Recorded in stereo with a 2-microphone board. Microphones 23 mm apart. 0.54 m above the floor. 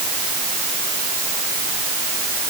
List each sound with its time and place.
Only background noise.